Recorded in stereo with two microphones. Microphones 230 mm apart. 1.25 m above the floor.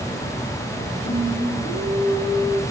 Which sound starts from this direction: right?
Singing, at 1.0 s.